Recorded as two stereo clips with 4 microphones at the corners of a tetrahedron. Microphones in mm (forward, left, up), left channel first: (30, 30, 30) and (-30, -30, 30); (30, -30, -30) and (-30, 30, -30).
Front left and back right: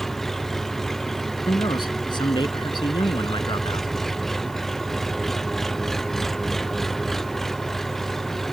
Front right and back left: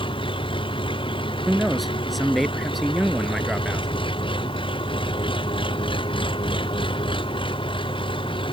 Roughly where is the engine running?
Ahead right.